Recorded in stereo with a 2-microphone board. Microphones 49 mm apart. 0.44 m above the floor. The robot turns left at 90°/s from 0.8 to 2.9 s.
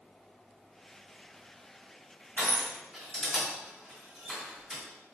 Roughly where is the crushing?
Left.